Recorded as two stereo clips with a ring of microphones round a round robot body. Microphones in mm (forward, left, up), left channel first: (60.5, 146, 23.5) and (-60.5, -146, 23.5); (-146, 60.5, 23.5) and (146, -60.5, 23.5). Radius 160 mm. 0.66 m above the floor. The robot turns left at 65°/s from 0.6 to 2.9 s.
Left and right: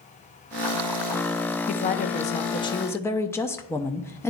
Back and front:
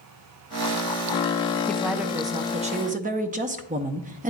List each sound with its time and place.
1.7 s a woman speaking: 75° left, 0.6 m; by 4.3 s 5° right, 0.6 m